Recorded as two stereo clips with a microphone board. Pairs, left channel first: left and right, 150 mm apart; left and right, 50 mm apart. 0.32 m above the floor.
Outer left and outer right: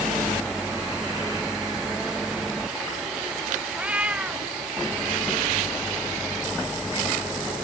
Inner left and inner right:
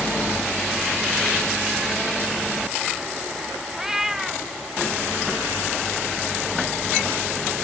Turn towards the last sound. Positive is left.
turn(degrees=-10)  # may be behind; listen again after turning